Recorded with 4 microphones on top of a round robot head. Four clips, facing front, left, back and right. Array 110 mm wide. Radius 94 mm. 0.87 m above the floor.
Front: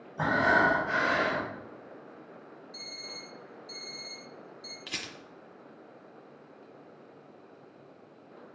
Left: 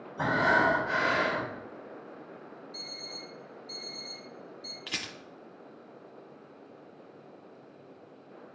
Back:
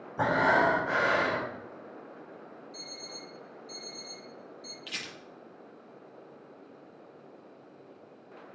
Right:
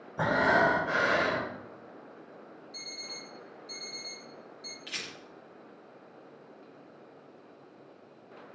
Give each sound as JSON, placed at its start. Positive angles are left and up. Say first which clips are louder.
{"t": 0.2, "sound": "breathing", "louder": "right 1 dB, even", "azimuth_deg": -140, "distance_m": 3.5}
{"t": 2.7, "sound": "an alarm clock", "louder": "left 2 dB, back 1 dB", "azimuth_deg": -65, "distance_m": 1.7}
{"t": 4.9, "sound": "a rattle", "louder": "left 3 dB, front 2 dB", "azimuth_deg": 65, "distance_m": 0.9}